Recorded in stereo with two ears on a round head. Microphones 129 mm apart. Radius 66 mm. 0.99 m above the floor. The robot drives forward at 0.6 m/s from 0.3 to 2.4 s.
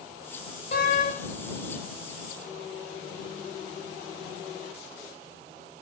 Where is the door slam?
50° left (ahead or behind), 3.5 m; by 1.1 s 55° left (ahead or behind), 3 m.